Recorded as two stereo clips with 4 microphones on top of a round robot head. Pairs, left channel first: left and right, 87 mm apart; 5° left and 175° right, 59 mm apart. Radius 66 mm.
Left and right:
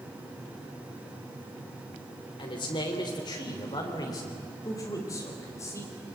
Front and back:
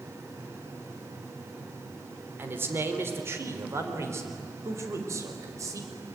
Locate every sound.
2.4 s a man speaking: 130° left, 3 m; by 5.9 s 155° left, 4.5 m